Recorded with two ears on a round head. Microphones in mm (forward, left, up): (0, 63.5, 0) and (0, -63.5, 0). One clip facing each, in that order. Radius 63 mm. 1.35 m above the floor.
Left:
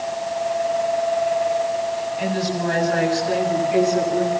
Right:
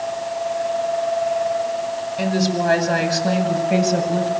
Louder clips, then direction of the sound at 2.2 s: Right 3 dB; 85° right.